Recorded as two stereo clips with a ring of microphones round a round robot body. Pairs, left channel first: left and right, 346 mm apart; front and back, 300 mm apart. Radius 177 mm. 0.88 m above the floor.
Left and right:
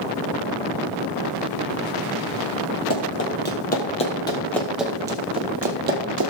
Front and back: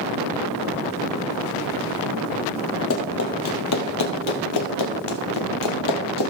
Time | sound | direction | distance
2.9 | running footsteps | 40° left | 2 m